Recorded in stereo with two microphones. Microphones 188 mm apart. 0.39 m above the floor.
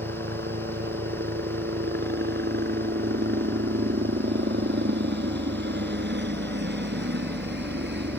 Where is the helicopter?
60° right (ahead or behind); by 8.2 s 65° right (ahead or behind).